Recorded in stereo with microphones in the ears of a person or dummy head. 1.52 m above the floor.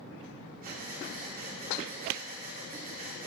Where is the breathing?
40° right (ahead or behind), 2.5 m.